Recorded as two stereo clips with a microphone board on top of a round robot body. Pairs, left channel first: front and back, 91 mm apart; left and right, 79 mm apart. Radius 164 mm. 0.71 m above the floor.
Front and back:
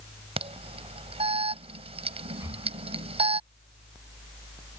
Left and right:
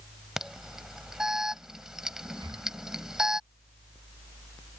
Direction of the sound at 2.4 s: 125° right.